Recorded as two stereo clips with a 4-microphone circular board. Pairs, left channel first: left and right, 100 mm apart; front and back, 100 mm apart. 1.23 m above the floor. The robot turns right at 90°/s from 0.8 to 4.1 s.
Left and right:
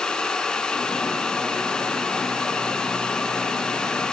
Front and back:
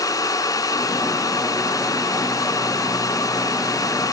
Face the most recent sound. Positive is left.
No sound to turn to.